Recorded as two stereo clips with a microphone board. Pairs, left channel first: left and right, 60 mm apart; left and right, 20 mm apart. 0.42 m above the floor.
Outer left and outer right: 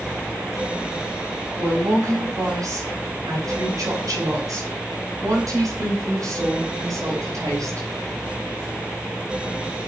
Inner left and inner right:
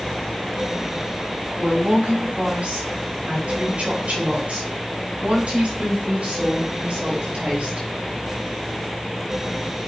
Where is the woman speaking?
80° right, 7.5 m; by 7.9 s 65° right (ahead or behind), 11 m.